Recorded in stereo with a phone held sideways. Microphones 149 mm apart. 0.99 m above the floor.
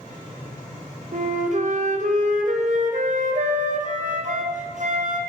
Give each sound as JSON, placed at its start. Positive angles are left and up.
{"t": 1.1, "sound": "a flute", "side_deg": -60, "distance_m": 0.6}